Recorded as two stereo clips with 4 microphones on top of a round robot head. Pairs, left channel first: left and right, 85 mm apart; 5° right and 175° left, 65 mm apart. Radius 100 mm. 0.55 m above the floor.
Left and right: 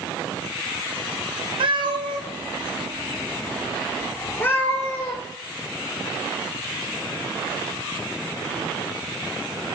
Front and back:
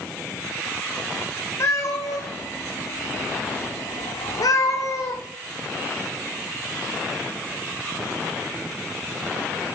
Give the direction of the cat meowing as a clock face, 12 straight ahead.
2 o'clock.